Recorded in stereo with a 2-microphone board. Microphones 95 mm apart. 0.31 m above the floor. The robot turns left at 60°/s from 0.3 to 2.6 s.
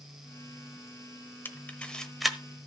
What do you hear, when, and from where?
1.4 s a camera shutter: 25° left (ahead or behind), 1.0 m; by 2.4 s 5° right (ahead or behind), 1.0 m